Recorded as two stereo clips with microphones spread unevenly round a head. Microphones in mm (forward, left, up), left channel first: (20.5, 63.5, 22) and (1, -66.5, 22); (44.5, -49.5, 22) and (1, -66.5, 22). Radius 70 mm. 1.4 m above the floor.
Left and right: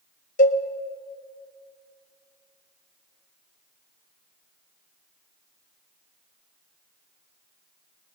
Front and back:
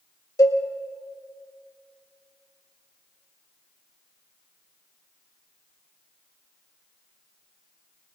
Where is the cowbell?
50° left, 1.4 m.